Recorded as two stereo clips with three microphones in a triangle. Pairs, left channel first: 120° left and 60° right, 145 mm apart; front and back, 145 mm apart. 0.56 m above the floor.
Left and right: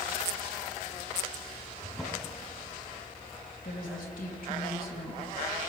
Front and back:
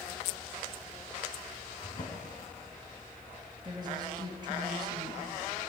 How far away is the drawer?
About 3 m.